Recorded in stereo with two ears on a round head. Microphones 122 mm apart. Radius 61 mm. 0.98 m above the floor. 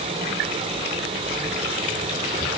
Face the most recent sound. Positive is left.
No sound to turn to.